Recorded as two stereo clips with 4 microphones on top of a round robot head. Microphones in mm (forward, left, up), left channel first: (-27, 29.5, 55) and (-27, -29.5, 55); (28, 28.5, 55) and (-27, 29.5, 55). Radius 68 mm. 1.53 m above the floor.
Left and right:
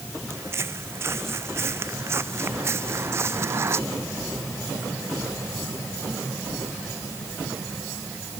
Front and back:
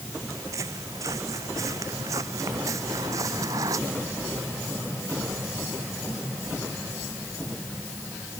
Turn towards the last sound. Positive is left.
turn(degrees=-135)